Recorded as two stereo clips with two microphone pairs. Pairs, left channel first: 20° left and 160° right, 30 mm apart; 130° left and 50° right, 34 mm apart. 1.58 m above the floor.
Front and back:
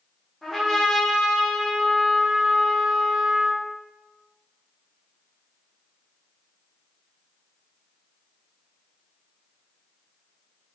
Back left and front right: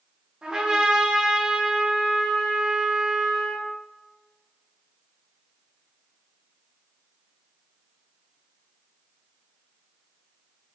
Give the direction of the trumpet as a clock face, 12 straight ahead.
2 o'clock.